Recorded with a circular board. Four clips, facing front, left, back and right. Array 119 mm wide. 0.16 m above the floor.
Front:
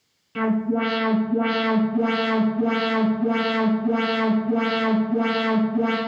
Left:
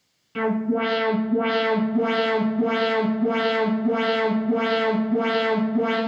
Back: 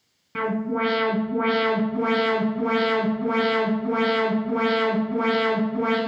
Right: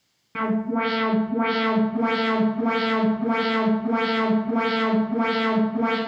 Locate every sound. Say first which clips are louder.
0.3 s an alarm: left 1 dB, front 3 dB; 140° right, 1.2 m